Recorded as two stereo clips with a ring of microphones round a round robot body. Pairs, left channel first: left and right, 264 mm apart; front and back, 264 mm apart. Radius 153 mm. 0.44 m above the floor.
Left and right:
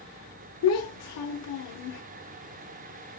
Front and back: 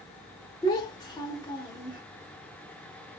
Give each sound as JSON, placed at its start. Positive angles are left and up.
{"t": 0.6, "sound": "a child speaking", "azimuth_deg": 75, "distance_m": 0.8}